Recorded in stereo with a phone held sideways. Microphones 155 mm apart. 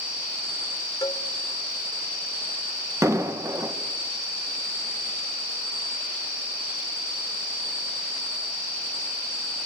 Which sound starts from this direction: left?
A cowbell, at 1.0 s.